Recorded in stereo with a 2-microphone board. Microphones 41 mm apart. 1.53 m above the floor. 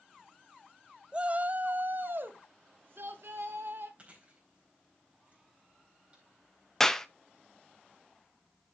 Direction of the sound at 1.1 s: 25° right (ahead or behind).